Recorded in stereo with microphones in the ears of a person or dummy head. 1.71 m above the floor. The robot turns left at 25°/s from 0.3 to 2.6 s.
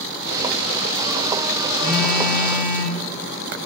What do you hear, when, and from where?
1.8 s a phone buzzing: 40° left (ahead or behind), 0.7 m; by 3.0 s 20° left (ahead or behind), 0.7 m